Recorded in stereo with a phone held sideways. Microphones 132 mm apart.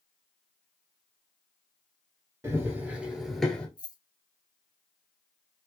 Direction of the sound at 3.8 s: 30° left (ahead or behind).